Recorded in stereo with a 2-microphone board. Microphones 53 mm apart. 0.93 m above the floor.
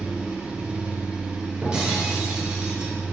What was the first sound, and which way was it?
An engine running, 20° right (ahead or behind).